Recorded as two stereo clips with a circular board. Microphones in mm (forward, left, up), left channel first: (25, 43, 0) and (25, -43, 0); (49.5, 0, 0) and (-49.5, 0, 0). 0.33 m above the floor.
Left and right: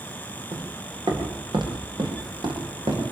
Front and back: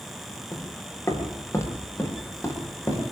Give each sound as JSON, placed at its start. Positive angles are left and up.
{"t": 0.5, "sound": "footsteps", "azimuth_deg": -65, "distance_m": 7.0}